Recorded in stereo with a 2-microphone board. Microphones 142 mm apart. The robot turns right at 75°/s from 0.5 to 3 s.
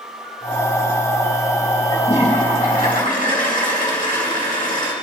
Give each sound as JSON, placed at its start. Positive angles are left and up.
{"t": 1.9, "sound": "a toilet flushing", "azimuth_deg": 30, "distance_m": 3.0}